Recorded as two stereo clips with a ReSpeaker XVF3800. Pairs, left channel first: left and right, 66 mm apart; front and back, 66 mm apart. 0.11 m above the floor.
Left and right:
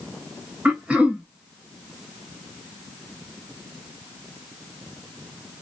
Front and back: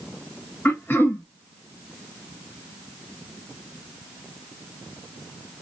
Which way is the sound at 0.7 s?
30° right.